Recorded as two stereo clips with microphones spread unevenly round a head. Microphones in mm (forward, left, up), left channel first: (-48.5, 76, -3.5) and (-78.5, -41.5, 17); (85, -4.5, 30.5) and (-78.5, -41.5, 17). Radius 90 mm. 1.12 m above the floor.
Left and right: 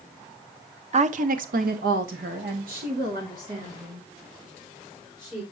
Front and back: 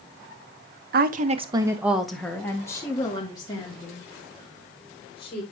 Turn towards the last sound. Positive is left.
turn(degrees=-45)